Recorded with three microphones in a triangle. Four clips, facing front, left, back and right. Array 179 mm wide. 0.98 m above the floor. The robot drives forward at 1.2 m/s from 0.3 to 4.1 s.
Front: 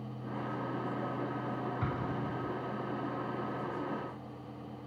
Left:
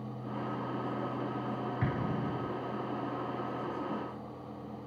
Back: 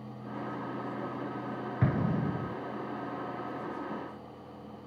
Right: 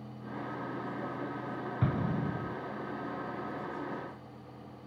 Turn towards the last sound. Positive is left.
turn(degrees=-165)